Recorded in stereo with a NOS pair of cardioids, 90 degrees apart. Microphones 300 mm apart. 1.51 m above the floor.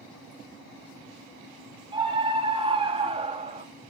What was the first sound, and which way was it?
A scream, 15° right.